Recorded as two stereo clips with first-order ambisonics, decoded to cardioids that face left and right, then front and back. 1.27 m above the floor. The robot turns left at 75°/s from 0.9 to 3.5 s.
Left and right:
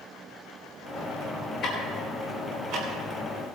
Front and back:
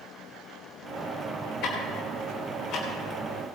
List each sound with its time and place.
1.6 s ticking: 30° left, 4.5 m; by 3.5 s 110° right, 4.5 m